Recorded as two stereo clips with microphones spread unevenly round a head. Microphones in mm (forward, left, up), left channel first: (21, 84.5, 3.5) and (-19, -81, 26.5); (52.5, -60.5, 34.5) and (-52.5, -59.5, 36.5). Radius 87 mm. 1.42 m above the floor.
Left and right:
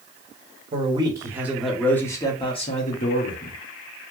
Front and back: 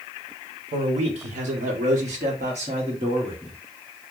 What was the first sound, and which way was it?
A man speaking, 165° right.